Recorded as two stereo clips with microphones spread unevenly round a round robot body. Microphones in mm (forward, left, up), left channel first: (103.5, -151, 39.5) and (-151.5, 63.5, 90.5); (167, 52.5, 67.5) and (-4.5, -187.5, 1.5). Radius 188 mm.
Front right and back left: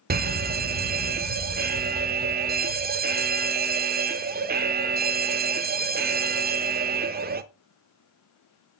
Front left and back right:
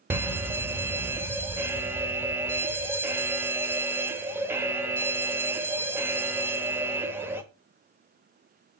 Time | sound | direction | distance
0.1 | an alarm | 170° right | 0.7 m